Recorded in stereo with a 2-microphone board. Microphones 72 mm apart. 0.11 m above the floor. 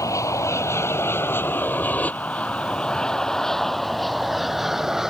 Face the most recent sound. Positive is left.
turn(degrees=-10)  # may be behind; listen again after turning